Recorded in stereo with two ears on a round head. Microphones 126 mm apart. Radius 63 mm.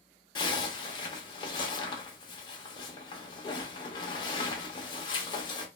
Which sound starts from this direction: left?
A zipper, at 0.3 s.